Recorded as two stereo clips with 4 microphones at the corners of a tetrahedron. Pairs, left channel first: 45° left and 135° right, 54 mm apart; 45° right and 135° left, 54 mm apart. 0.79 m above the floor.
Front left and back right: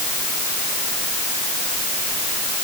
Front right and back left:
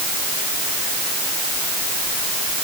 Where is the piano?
I don't hear a piano.